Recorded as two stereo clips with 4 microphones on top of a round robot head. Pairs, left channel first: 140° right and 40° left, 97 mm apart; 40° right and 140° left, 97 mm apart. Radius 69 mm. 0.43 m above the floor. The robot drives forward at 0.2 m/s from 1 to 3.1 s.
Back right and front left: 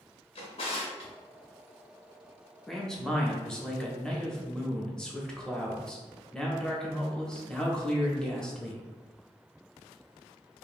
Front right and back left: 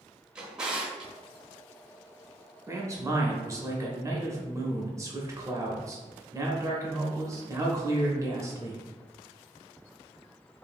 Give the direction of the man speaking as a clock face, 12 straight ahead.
7 o'clock.